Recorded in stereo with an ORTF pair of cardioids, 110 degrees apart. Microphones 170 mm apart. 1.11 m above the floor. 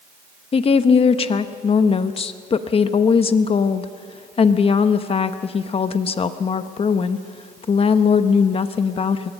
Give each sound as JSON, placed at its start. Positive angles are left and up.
{"t": 0.5, "sound": "a woman speaking", "azimuth_deg": 35, "distance_m": 1.0}